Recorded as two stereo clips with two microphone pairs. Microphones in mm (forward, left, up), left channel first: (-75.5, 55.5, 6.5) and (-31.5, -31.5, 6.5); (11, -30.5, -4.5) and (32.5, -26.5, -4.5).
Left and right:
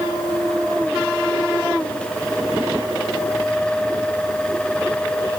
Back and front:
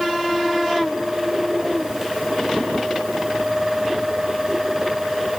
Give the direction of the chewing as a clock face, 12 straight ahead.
I don't hear chewing.